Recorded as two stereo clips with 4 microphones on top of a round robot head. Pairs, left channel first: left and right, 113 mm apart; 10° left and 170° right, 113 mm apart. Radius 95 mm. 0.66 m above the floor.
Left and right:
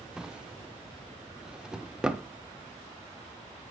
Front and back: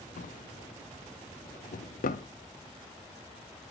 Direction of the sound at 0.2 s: 5° right.